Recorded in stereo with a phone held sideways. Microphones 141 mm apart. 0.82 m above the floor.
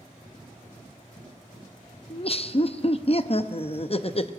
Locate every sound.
2.1 s laughter: 45° left (ahead or behind), 0.7 m